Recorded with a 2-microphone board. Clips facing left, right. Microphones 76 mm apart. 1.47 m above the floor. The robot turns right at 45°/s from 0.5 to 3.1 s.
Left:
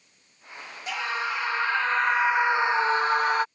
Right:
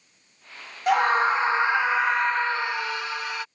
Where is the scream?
60° right; by 3.5 s 45° left.